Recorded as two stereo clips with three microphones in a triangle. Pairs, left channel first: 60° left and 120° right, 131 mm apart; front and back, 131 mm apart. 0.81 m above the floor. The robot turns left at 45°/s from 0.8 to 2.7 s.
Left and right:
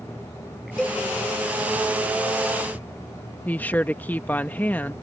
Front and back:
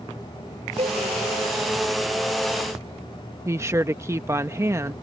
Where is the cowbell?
145° left; by 1.0 s 135° left.